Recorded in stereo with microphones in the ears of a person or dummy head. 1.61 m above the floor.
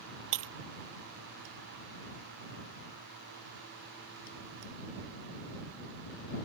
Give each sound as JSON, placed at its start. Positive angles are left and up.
{"t": 0.3, "sound": "breaking glass", "side_deg": -70}